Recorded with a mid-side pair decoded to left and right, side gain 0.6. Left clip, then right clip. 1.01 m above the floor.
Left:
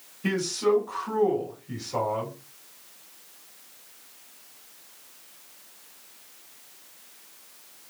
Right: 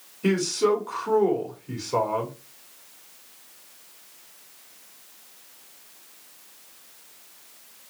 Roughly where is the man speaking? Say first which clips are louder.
Right 3 dB; ahead right.